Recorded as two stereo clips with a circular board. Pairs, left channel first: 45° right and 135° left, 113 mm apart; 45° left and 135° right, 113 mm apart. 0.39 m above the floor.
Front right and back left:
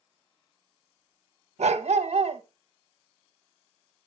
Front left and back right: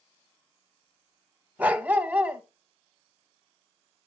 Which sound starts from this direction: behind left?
A dog barking, at 1.6 s.